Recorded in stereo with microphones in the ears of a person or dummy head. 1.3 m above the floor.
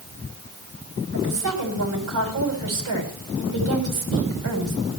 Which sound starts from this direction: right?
A woman speaking, at 1.1 s.